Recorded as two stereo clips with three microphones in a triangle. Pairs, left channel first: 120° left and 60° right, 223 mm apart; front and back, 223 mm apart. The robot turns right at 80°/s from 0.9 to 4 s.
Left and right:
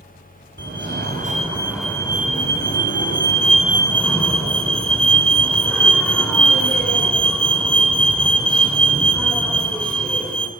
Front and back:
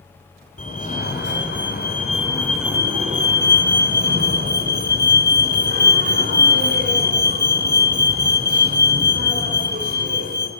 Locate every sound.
0.6 s a fire alarm: 45° right, 3.5 m; by 10.5 s 155° right, 3.5 m